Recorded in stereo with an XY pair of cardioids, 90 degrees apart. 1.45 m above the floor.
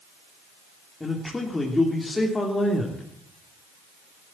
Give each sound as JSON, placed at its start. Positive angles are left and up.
{"t": 1.0, "sound": "a man speaking", "azimuth_deg": 25, "distance_m": 3.0}